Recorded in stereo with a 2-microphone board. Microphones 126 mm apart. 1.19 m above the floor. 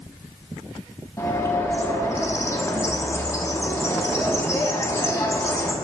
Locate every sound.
1.2 s a bird: 20° left (ahead or behind), 0.8 m